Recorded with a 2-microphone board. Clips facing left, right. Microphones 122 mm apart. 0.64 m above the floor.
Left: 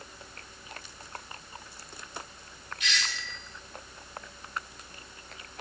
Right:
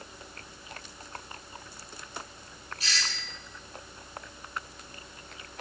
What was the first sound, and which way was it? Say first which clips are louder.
A doorbell: left 2 dB; 35° right (ahead or behind).